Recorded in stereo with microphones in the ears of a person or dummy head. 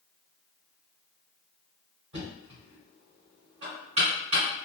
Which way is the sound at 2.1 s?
30° right (ahead or behind).